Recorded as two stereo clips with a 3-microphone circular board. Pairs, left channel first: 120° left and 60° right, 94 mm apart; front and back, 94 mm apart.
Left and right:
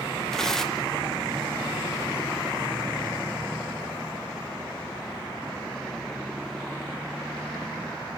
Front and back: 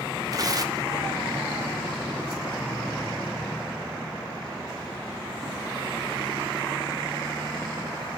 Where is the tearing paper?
155° right, 0.6 m.